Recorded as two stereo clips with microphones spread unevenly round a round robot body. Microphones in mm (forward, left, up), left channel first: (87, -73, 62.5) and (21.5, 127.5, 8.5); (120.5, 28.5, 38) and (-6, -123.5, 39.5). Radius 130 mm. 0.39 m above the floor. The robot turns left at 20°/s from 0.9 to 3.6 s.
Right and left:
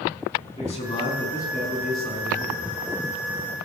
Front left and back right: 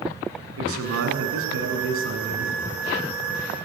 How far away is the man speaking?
About 5 m.